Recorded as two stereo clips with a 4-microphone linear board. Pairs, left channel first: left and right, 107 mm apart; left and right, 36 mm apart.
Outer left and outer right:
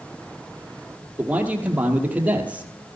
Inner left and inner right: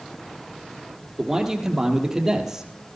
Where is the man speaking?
15° right (ahead or behind), 2.5 m.